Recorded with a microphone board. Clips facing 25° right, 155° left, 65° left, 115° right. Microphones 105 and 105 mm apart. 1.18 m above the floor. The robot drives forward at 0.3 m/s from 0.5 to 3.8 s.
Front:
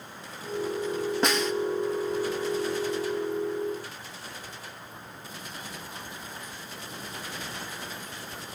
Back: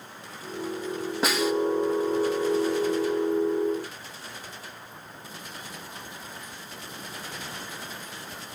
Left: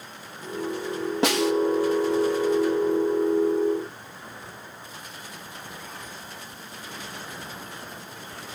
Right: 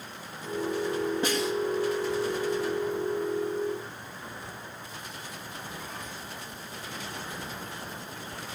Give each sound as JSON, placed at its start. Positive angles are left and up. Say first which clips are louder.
{"t": 1.2, "sound": "a snare drum", "louder": "back 3 dB, left 6 dB", "azimuth_deg": 70, "distance_m": 0.9}